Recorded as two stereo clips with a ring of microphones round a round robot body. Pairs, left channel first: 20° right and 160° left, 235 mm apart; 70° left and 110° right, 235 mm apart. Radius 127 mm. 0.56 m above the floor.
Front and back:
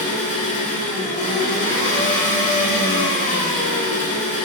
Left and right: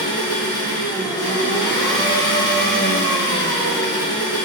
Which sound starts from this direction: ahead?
An engine running, at 0.0 s.